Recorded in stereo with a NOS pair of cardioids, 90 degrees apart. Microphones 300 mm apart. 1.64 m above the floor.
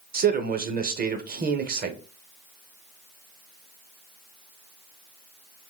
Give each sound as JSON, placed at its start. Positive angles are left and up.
{"t": 0.1, "sound": "a man speaking", "azimuth_deg": -30, "distance_m": 0.7}